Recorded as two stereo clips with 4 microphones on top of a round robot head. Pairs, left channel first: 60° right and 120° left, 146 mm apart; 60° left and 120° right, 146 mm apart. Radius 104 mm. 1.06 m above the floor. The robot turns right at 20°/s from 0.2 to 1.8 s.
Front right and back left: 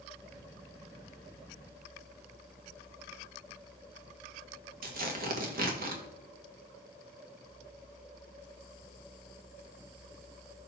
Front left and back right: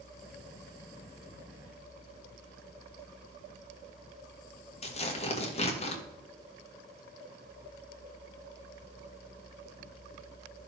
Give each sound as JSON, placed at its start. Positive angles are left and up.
{"t": 4.8, "sound": "tearing paper", "azimuth_deg": 105, "distance_m": 1.8}